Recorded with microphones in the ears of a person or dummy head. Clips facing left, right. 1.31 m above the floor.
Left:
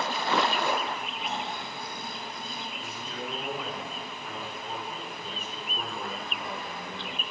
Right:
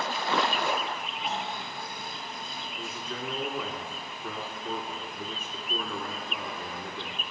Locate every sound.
1.2 s snoring: 75° left (ahead or behind), 2 m
2.8 s a man speaking: 50° right (ahead or behind), 3 m